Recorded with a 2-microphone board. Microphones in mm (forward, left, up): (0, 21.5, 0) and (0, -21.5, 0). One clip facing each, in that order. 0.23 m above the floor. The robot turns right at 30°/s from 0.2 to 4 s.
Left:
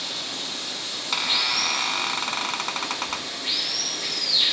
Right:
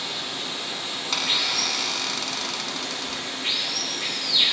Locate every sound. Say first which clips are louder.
0.0 s running water: right 1 dB; 175° right, 5.5 m; by 4.5 s 60° right, 5.5 m
1.1 s a squeak: left 1 dB; 10° left, 0.6 m; by 3.3 s 75° left, 0.6 m